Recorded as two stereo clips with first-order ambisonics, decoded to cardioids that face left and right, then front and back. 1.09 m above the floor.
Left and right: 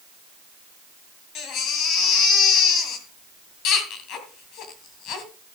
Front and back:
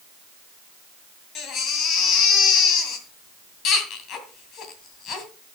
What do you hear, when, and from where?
1.4 s a baby crying: 50° left, 2.5 m